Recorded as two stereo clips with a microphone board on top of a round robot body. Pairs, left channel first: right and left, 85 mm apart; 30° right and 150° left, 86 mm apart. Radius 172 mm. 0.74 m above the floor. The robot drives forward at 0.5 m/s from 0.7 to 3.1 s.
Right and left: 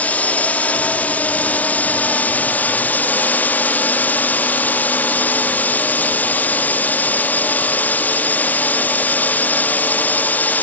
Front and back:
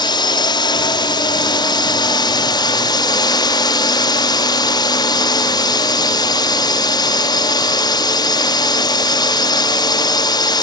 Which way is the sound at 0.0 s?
20° right.